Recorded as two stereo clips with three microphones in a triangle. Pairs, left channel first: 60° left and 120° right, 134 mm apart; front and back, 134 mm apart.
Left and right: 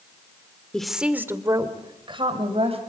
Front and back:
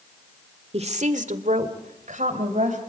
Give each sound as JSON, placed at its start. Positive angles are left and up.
{"t": 0.7, "sound": "a woman speaking", "azimuth_deg": 145, "distance_m": 1.5}